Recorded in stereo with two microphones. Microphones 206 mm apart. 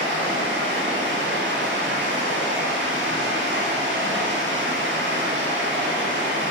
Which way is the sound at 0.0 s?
70° right (ahead or behind).